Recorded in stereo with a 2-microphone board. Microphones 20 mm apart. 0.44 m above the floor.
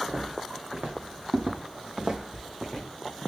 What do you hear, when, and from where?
0.1 s footsteps: 60° right (ahead or behind), 2.5 m; by 2.8 s 15° right (ahead or behind), 1.4 m